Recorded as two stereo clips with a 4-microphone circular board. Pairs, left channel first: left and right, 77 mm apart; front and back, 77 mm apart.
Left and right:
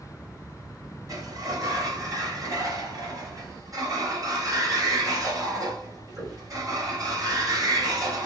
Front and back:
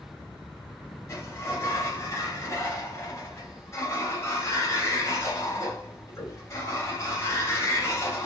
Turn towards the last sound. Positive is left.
turn(degrees=-50)